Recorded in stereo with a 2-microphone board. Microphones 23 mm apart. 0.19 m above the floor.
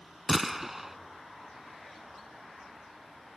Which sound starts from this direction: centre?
A gunshot, at 0.3 s.